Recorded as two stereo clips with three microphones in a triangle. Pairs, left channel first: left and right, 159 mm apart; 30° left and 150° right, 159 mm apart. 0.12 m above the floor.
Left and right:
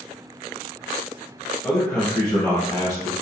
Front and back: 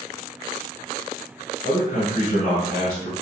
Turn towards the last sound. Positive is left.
turn(degrees=55)